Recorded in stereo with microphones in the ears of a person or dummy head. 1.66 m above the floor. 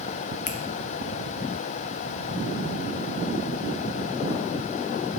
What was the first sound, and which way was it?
A finger snap, 45° left (ahead or behind).